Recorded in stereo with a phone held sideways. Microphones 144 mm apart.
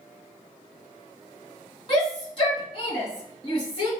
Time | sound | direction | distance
1.9 | a shout | 40° left (ahead or behind) | 2 m